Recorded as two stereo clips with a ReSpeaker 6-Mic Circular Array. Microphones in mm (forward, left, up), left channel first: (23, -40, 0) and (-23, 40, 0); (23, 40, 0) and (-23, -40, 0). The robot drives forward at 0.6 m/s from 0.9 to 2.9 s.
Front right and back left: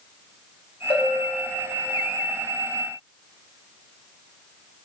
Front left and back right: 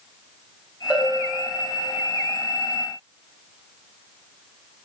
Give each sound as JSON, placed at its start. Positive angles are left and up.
{"t": 0.9, "sound": "a bell", "azimuth_deg": -50, "distance_m": 1.0}